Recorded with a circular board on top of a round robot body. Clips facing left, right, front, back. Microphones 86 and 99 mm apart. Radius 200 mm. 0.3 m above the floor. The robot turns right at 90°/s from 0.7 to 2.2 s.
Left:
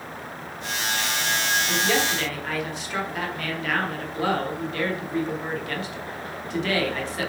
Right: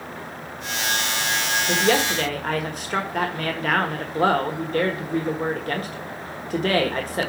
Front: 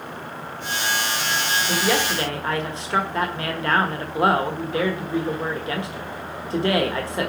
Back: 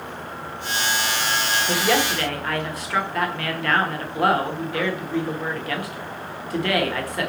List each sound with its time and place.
1.7 s a woman speaking: 105° right, 1.5 m; by 7.3 s 60° right, 1.5 m